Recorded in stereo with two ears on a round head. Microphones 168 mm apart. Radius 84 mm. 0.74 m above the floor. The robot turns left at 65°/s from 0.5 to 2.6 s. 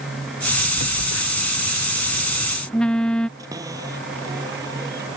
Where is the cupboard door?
20° right (ahead or behind).